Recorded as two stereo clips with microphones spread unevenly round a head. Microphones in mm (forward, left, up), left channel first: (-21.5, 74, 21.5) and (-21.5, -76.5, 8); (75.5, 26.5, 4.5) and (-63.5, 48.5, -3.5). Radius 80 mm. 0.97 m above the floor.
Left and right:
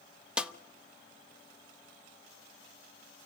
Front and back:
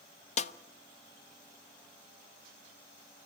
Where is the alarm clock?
I don't hear an alarm clock.